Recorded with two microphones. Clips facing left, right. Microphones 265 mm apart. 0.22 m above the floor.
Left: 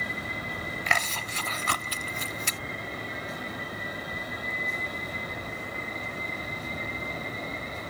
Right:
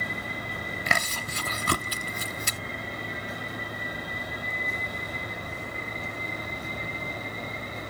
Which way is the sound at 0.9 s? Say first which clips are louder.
Right 2 dB; 45° right (ahead or behind).